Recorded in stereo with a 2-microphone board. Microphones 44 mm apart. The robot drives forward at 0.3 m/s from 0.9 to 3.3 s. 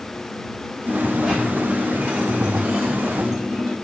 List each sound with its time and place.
0.9 s a dropped coin: 15° right (ahead or behind), 1.2 m; by 3.8 s 10° right (ahead or behind), 1.6 m